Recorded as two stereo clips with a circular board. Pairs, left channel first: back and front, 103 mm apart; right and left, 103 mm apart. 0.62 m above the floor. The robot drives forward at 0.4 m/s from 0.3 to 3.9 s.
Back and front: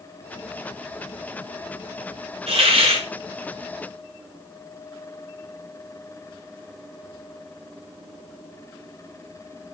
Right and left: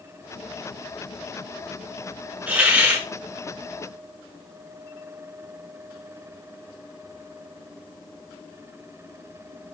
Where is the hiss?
15° left, 6.5 m.